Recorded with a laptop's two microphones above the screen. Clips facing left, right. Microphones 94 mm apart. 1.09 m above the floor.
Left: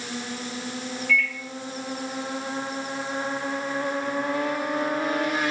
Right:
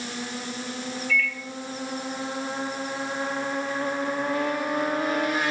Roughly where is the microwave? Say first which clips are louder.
Left 2 dB; left.